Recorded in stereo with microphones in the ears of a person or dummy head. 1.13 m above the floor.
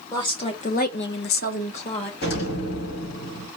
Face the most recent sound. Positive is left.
turn(degrees=55)  # may be behind; listen again after turning